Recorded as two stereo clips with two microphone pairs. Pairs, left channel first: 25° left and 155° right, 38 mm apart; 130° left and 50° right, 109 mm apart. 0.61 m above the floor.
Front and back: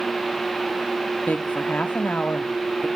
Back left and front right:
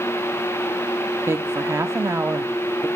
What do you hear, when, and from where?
1.3 s a woman speaking: 5° left, 0.8 m